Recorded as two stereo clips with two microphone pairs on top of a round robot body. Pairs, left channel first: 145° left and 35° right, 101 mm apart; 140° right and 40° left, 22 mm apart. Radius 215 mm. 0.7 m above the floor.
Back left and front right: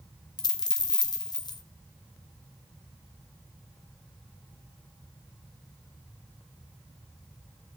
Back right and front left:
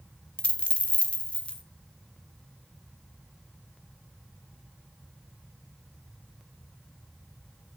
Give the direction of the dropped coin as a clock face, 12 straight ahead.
6 o'clock.